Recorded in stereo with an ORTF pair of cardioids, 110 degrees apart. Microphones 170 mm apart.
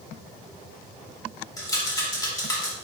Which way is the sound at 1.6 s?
20° left.